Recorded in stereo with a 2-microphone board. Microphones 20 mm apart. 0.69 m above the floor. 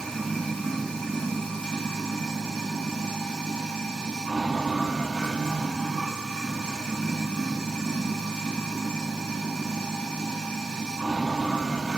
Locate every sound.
0.0 s running water: 70° left (ahead or behind), 1.2 m